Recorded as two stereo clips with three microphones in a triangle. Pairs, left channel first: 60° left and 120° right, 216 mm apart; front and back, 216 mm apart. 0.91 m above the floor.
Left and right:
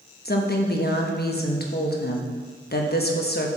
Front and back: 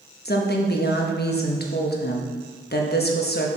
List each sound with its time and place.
0.2 s a woman speaking: 30° left, 1.0 m